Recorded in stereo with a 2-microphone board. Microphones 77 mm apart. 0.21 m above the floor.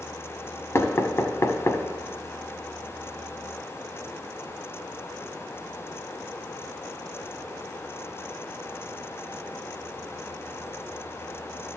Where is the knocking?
40° left (ahead or behind), 0.8 m.